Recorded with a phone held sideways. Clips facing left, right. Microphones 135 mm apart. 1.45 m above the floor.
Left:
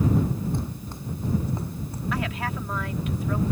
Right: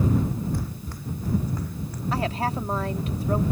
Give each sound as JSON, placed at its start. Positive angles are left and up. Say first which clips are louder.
{"t": 0.5, "sound": "running footsteps", "louder": "left 1 dB", "side_deg": 25}
{"t": 2.1, "sound": "a woman speaking", "louder": "right 4 dB", "side_deg": -35}